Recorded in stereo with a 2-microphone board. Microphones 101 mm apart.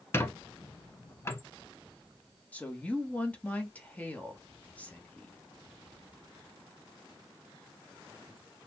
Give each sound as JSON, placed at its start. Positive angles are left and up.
{"t": 0.1, "sound": "a squeak", "side_deg": 25, "distance_m": 0.9}
{"t": 2.5, "sound": "a woman speaking", "side_deg": 15, "distance_m": 1.3}